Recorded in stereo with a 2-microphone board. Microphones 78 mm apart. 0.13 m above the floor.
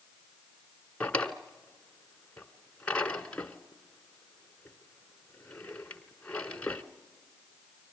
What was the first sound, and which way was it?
A drawer, 15° left (ahead or behind).